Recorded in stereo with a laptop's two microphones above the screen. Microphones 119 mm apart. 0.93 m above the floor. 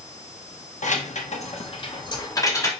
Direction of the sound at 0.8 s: 85° left.